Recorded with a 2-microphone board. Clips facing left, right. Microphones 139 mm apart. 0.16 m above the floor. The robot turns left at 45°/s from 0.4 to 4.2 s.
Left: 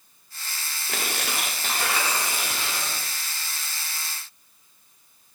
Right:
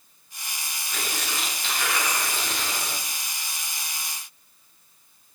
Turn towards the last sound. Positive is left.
turn(degrees=-70)